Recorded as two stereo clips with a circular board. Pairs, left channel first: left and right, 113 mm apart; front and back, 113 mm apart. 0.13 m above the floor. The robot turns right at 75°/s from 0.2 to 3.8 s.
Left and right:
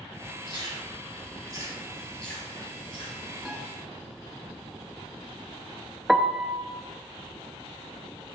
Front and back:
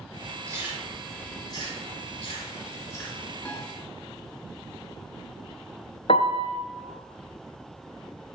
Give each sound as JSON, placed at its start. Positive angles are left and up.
{"t": 0.5, "sound": "chewing", "azimuth_deg": -125, "distance_m": 3.0}
{"t": 3.5, "sound": "a piano", "azimuth_deg": 10, "distance_m": 1.7}
{"t": 6.1, "sound": "a piano", "azimuth_deg": 0, "distance_m": 0.6}